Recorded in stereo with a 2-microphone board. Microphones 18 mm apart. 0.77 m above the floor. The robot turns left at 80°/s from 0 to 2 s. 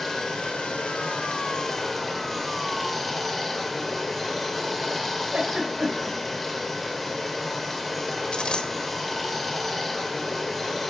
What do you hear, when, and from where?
0.0 s running water: 160° left, 1.9 m; by 10.9 s straight ahead, 1.9 m
5.3 s a giggle: 70° right (ahead or behind), 3.5 m
8.3 s a dropped coin: 75° left (ahead or behind), 1.2 m